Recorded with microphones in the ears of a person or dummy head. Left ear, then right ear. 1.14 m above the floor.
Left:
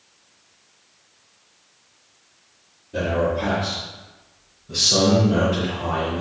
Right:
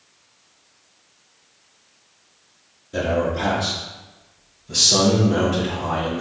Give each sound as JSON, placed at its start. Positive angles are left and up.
{"t": 2.9, "sound": "a man speaking", "side_deg": -45, "distance_m": 0.7}